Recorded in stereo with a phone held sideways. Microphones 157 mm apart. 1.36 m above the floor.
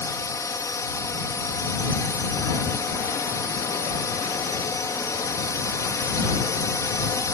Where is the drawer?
No drawer in this recording.